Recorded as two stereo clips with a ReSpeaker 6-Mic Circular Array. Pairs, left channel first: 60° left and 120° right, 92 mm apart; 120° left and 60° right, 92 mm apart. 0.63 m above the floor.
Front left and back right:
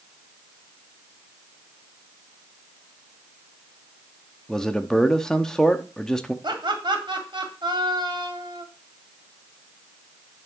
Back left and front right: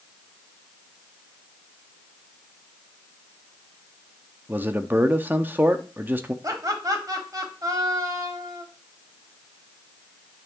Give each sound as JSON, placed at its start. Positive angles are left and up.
{"t": 4.5, "sound": "a man speaking", "azimuth_deg": -15, "distance_m": 0.8}
{"t": 6.4, "sound": "laughter", "azimuth_deg": -105, "distance_m": 1.7}